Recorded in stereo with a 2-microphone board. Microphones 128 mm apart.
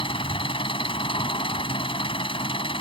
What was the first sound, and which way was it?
An engine running, 45° left (ahead or behind).